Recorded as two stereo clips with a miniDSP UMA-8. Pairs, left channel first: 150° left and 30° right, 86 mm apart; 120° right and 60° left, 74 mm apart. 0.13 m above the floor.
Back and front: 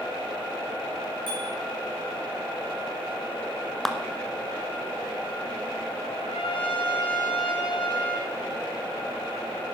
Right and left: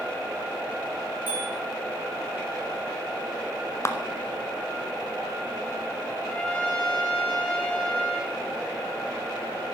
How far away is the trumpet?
About 3 m.